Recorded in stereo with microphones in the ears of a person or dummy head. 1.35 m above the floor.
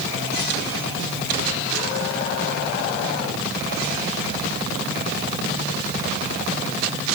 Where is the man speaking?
I don't hear a man speaking.